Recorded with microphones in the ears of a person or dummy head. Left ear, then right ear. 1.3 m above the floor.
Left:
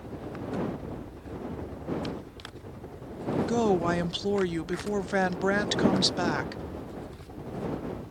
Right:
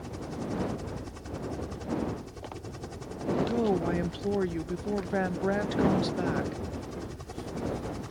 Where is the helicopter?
70° right (ahead or behind).